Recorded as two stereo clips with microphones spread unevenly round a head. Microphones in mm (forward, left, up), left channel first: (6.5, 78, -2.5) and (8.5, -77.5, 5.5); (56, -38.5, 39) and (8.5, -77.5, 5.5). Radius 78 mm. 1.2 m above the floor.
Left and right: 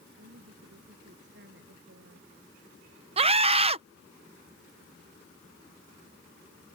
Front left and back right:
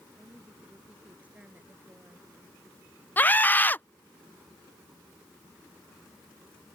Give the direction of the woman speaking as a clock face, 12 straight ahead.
2 o'clock.